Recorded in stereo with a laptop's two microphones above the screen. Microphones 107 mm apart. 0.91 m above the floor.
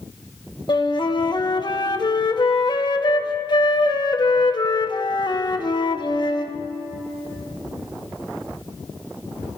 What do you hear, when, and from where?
0.7 s a flute: 45° left (ahead or behind), 1.3 m